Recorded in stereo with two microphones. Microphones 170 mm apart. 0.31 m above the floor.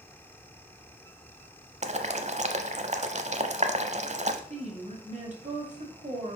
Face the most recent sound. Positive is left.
turn(degrees=-45)  # may be behind; listen again after turning